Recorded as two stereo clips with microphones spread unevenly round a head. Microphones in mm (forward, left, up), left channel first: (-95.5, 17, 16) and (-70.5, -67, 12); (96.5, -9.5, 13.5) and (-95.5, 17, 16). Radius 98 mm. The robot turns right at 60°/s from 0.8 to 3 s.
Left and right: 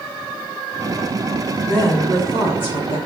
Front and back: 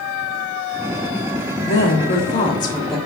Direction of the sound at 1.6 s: 5° left.